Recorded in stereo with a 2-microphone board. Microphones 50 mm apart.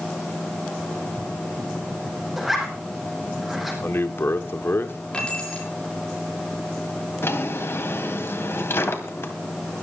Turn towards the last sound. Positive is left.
turn(degrees=55)  # may be behind; listen again after turning